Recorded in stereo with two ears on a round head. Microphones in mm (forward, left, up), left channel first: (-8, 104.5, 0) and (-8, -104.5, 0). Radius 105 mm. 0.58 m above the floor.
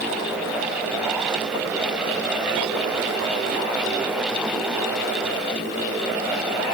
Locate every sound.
Only background noise.